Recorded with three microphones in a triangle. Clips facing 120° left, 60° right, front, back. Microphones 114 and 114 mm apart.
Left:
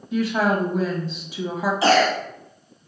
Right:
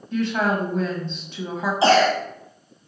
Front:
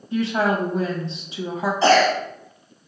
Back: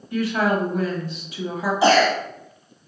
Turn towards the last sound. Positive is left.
turn(degrees=-105)